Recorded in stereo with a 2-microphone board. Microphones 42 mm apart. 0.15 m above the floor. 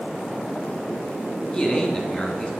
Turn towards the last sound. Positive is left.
turn(degrees=20)  # may be behind; listen again after turning